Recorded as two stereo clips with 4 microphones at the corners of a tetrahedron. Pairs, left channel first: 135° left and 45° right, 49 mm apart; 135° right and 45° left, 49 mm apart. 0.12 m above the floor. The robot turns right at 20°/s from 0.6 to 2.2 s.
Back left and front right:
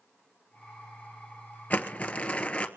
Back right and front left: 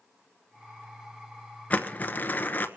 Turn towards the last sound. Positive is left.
turn(degrees=-170)